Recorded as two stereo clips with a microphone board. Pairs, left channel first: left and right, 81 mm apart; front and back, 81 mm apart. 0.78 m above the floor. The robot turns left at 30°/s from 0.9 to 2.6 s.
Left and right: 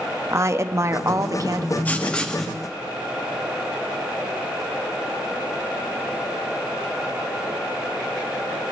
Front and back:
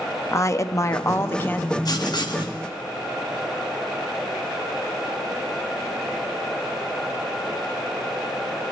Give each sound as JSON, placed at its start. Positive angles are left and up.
{"t": 0.3, "sound": "a woman speaking", "azimuth_deg": -45, "distance_m": 0.6}
{"t": 1.9, "sound": "writing", "azimuth_deg": 25, "distance_m": 0.9}